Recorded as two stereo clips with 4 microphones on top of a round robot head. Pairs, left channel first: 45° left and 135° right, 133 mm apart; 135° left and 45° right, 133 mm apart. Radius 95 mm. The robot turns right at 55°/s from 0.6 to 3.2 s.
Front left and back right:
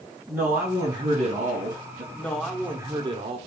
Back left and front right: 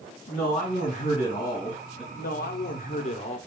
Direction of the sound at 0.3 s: 150° left.